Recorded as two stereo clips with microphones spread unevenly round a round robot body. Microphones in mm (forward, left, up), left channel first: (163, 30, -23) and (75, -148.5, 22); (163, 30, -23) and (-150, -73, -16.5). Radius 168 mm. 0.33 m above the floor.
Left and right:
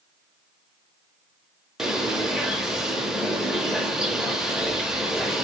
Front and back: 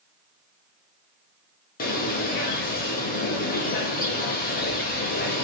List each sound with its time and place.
1.8 s a bird: 5° right, 0.5 m